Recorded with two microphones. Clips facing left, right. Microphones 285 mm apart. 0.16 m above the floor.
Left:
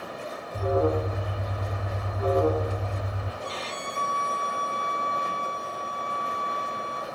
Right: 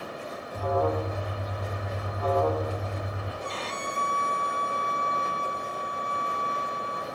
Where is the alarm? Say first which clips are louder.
Left 3 dB; 25° left (ahead or behind), 0.8 m.